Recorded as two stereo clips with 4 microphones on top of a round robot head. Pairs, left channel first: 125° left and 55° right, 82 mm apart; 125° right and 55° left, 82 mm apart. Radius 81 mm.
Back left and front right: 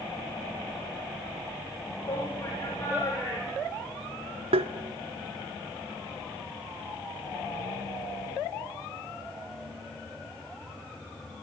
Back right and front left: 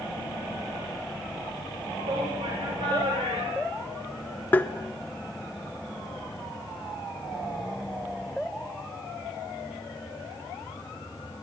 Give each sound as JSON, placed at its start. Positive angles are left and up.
{"t": 2.0, "sound": "a shout", "azimuth_deg": 75, "distance_m": 6.0}
{"t": 4.5, "sound": "tapping", "azimuth_deg": -55, "distance_m": 0.9}